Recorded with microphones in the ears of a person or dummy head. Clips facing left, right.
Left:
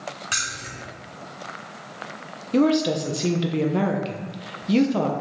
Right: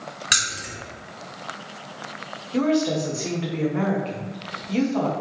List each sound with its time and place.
0.3 s keys jangling: 25° right (ahead or behind), 0.8 m
2.5 s a woman speaking: 45° left (ahead or behind), 0.7 m